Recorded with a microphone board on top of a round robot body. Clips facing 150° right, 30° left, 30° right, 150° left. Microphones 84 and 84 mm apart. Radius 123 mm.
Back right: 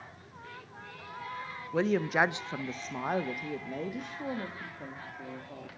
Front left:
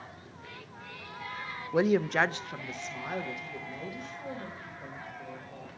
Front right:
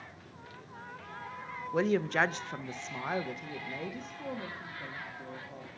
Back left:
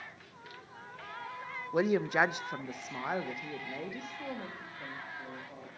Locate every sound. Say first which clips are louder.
1.7 s a woman speaking: front left 2 dB, even; 80° left, 0.6 m; by 5.7 s 120° right, 2.0 m